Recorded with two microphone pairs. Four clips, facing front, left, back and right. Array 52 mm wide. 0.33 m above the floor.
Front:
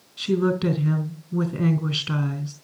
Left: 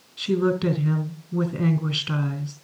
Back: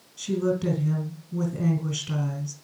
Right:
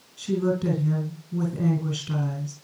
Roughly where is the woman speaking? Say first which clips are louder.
Left 3 dB, front 3 dB; ahead left.